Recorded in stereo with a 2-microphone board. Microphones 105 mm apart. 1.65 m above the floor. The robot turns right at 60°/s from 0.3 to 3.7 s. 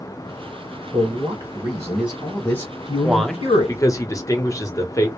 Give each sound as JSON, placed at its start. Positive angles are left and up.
{"t": 0.9, "sound": "a man speaking", "azimuth_deg": -70, "distance_m": 1.1}
{"t": 3.0, "sound": "a man speaking", "azimuth_deg": -10, "distance_m": 0.8}